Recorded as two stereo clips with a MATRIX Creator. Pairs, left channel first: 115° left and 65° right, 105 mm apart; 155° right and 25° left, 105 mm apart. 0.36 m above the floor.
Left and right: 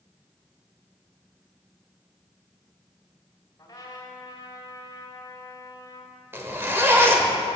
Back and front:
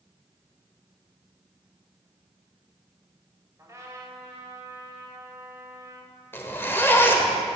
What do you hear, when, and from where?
3.6 s a trumpet: 70° left, 2.0 m
6.3 s a zipper: 110° right, 1.2 m